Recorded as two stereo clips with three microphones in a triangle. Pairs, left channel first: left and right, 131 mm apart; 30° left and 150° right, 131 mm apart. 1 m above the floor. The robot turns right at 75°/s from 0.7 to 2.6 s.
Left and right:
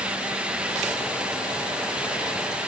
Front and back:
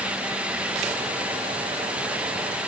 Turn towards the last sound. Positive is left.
No sound to turn to.